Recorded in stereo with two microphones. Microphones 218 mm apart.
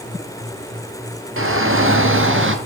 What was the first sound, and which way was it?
A shout, 70° right (ahead or behind).